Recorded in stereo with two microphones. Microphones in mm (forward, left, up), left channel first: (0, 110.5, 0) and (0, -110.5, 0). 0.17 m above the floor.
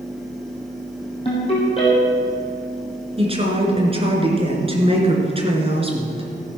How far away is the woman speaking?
About 2.5 m.